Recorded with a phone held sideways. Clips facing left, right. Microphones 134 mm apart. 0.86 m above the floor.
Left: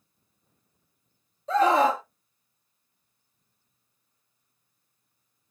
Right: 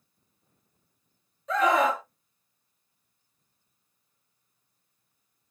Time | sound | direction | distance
1.5 | a scream | 30° left (ahead or behind) | 0.9 m